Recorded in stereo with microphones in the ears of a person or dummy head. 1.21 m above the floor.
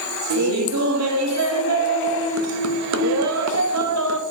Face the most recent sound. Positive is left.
turn(degrees=-75)  # may be behind; listen again after turning